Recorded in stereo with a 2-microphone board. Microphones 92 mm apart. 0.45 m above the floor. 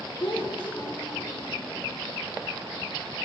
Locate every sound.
0.2 s a child speaking: 55° left (ahead or behind), 1.2 m